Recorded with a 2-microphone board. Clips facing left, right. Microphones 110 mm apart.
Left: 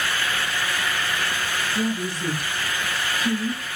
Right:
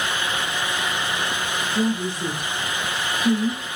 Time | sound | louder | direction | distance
1.7 | a woman speaking | right 4 dB | 25° right (ahead or behind) | 1.1 m